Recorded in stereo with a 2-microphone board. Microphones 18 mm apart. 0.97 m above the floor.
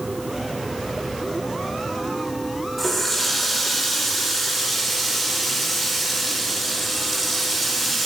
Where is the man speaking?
I don't hear a man speaking.